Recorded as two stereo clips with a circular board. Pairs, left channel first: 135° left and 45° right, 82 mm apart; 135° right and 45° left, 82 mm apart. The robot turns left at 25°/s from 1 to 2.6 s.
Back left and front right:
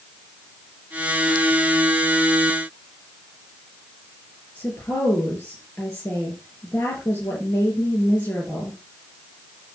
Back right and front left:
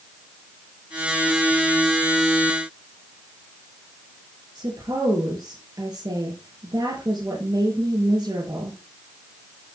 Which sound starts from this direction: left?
A woman speaking, at 4.5 s.